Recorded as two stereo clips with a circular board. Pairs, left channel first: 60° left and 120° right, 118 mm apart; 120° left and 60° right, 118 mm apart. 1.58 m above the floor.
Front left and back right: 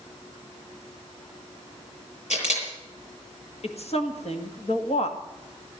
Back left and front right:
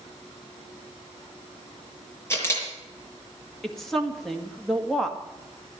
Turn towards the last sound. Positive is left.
turn(degrees=35)